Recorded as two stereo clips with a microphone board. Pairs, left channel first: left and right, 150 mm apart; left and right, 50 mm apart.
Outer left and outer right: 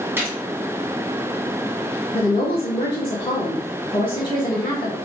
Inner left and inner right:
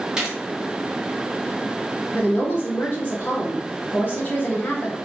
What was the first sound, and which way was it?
A gunshot, 15° right (ahead or behind).